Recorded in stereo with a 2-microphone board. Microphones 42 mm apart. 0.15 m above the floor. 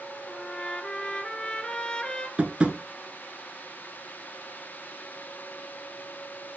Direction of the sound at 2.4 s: 25° right (ahead or behind).